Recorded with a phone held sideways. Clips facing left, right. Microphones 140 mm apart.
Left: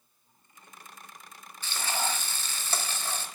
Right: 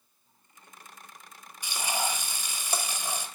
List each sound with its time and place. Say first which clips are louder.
1.6 s frying: right 1 dB; 15° right (ahead or behind), 1.0 m